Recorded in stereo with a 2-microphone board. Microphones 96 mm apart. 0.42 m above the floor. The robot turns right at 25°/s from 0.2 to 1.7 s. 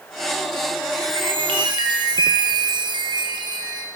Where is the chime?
75° right (ahead or behind), 3 m; by 3.9 s 55° right (ahead or behind), 3 m.